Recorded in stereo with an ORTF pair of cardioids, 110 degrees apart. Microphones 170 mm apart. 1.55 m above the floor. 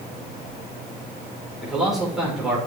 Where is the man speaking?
Straight ahead, 5 m.